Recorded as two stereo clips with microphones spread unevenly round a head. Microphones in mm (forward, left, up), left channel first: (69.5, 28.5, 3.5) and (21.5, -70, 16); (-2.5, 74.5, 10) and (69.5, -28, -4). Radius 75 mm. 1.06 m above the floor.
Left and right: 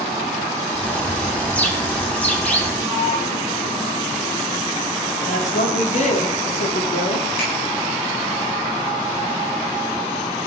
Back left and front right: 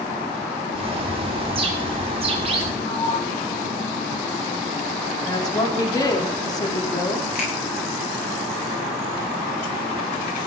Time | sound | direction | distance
0.7 | a bird | 15° right | 2.5 m
2.8 | a sliding door | 90° left | 7.5 m
5.2 | a woman speaking | 65° left | 3 m
7.3 | a finger snap | 100° left | 8.5 m